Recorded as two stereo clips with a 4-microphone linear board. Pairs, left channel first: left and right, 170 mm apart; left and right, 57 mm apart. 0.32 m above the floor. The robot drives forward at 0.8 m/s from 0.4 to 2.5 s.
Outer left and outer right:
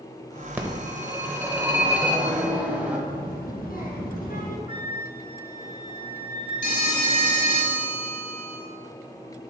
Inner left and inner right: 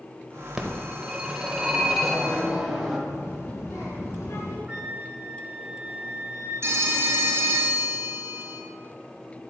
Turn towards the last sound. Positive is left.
turn(degrees=-55)  # may be behind; listen again after turning